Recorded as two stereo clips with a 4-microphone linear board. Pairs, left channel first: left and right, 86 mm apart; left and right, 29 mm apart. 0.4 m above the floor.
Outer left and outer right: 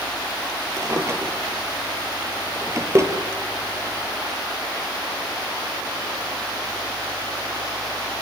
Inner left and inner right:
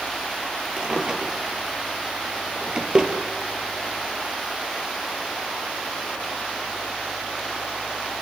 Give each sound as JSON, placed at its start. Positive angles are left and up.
{"t": 0.8, "sound": "a drawer", "side_deg": -35, "distance_m": 4.0}